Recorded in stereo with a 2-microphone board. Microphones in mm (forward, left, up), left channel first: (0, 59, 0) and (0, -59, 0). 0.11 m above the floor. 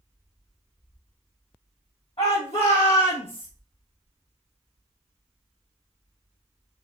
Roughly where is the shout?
Left.